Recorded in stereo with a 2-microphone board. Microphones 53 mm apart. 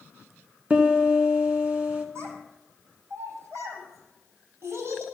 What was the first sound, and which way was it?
A piano, 25° right (ahead or behind).